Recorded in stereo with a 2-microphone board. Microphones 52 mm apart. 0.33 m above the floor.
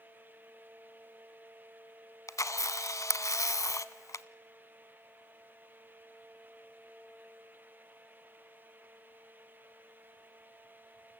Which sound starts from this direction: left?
A camera shutter, at 2.3 s.